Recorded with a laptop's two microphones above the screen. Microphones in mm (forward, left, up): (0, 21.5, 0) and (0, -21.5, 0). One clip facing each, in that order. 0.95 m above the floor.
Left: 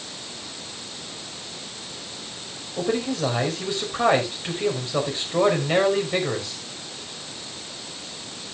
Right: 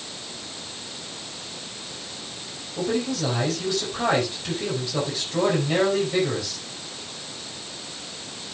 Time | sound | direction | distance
2.8 | a man speaking | 30° left (ahead or behind) | 5 m